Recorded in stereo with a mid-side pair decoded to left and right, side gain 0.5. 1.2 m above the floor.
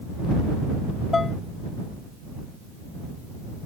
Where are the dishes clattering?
25° left.